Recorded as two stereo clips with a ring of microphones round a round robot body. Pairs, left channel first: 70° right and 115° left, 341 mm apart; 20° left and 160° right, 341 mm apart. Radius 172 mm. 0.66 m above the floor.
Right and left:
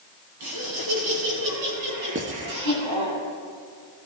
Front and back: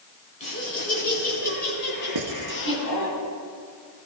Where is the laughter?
90° left, 6.5 m; by 3.1 s 75° left, 5.5 m.